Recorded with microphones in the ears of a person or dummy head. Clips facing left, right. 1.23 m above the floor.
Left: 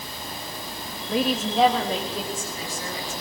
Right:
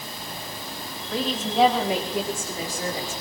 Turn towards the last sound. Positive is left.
turn(degrees=-30)  # may be behind; listen again after turning